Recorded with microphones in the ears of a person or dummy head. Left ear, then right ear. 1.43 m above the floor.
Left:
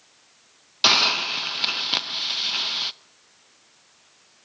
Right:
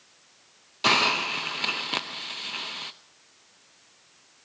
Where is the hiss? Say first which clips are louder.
Left 4 dB; 25° left (ahead or behind), 0.8 m.